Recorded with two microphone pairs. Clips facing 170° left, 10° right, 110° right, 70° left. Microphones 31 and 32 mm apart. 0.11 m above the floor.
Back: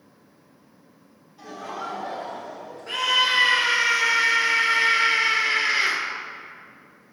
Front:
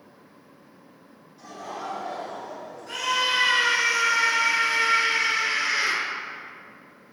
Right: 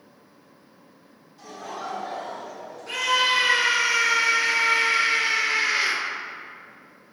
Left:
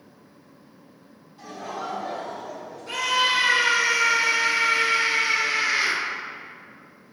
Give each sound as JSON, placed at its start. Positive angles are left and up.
{"t": 1.4, "sound": "laughter", "azimuth_deg": 115, "distance_m": 1.9}
{"t": 2.9, "sound": "a scream", "azimuth_deg": -170, "distance_m": 1.9}